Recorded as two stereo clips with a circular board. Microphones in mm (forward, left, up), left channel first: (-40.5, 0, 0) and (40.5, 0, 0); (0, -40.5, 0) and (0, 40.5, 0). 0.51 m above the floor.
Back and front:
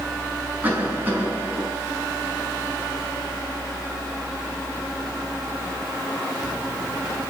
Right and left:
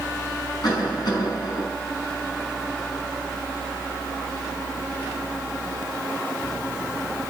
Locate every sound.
0.6 s a cough: 65° right, 5 m